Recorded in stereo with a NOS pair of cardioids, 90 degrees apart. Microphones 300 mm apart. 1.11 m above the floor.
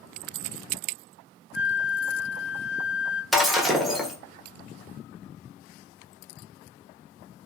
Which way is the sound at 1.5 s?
5° right.